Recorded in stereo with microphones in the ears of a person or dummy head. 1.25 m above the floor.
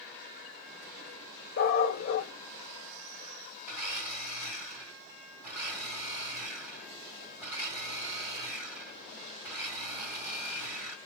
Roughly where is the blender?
Centre.